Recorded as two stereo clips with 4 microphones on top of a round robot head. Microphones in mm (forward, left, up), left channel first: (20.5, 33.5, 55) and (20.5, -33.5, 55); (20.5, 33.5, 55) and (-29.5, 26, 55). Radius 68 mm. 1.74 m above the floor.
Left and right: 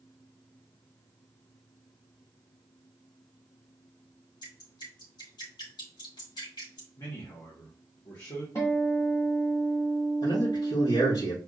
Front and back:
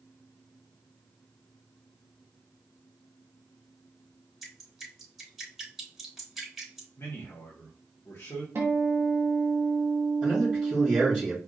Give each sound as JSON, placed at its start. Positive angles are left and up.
{"t": 4.4, "sound": "dripping", "azimuth_deg": 100, "distance_m": 3.5}
{"t": 7.0, "sound": "a man speaking", "azimuth_deg": 50, "distance_m": 1.7}
{"t": 8.6, "sound": "a guitar", "azimuth_deg": 145, "distance_m": 1.6}
{"t": 10.2, "sound": "a man speaking", "azimuth_deg": 90, "distance_m": 3.0}